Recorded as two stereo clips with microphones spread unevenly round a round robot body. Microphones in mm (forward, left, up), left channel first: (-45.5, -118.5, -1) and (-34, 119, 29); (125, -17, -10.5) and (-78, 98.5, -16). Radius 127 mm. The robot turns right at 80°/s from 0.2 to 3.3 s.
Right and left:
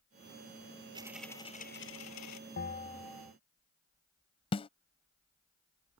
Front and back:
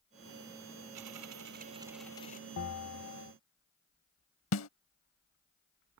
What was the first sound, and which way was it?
A dropped coin, 155° left.